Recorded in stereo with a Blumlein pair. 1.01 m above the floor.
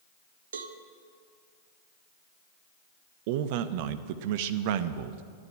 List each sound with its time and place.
0.5 s a cowbell: 65° right, 1.1 m
3.3 s a man speaking: 50° right, 0.8 m